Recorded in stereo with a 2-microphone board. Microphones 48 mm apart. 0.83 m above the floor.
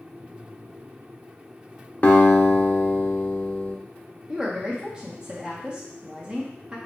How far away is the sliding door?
No sliding door in this recording.